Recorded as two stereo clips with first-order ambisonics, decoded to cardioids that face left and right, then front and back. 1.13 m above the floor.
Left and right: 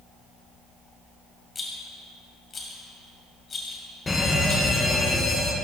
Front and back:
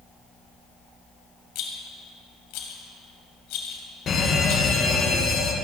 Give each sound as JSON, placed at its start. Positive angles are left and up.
{"t": 1.6, "sound": "a rattle", "azimuth_deg": 20, "distance_m": 2.0}
{"t": 4.1, "sound": "a fire alarm", "azimuth_deg": 25, "distance_m": 1.7}